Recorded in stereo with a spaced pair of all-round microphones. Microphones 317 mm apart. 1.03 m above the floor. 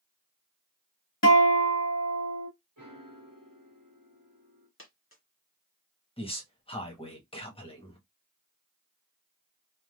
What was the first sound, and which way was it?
A guitar, 55° left (ahead or behind).